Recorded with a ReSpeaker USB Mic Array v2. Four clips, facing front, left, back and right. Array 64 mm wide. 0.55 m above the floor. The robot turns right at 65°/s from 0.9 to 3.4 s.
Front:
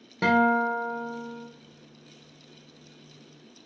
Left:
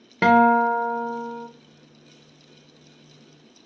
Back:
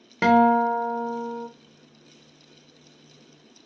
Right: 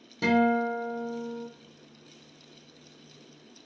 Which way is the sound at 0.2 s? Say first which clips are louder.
Left 8 dB, back 4 dB; 115° left.